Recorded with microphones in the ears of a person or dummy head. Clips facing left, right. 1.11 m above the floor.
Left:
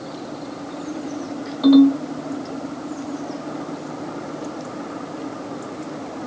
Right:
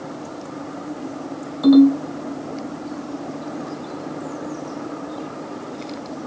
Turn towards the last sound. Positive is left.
turn(degrees=-5)  # may be behind; listen again after turning